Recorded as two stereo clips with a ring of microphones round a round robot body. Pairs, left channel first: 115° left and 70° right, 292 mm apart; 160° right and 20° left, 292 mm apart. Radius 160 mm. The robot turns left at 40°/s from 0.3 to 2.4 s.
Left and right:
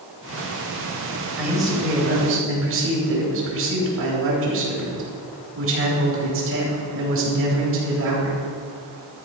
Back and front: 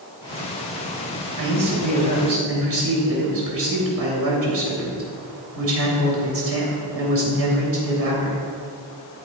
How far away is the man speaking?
About 3.5 m.